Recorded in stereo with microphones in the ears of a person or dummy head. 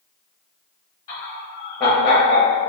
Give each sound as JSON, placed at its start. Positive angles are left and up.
{"t": 1.1, "sound": "laughter", "side_deg": 25, "distance_m": 0.8}